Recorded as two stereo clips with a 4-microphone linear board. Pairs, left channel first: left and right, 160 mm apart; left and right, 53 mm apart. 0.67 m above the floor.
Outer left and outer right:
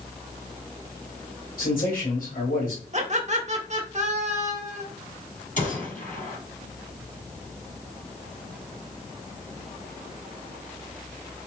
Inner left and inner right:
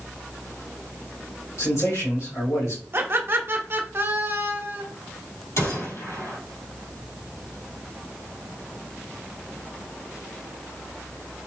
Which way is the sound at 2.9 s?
45° right (ahead or behind).